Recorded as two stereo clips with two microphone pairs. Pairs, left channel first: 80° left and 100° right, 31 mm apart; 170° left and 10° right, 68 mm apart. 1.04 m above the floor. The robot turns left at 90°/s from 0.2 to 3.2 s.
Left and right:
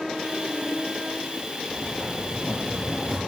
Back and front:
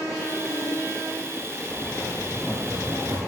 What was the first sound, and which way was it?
Writing, 145° left.